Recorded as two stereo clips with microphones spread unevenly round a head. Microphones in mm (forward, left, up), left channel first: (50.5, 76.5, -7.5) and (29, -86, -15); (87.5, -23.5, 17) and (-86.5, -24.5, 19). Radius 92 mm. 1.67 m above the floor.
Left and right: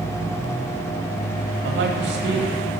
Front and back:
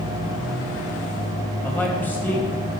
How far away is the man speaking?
About 2.5 m.